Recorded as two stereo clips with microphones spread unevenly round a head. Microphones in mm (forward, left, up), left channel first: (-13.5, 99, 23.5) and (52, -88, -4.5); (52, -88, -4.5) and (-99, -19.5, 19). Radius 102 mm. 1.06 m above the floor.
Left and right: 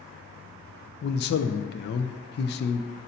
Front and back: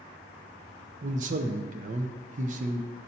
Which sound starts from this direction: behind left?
A man speaking, at 1.0 s.